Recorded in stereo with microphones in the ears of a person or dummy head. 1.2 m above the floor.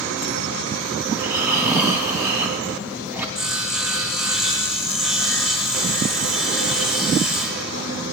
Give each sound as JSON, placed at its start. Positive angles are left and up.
{"t": 1.1, "sound": "snoring", "side_deg": -10, "distance_m": 3.0}
{"t": 3.4, "sound": "sawing", "side_deg": 0, "distance_m": 1.7}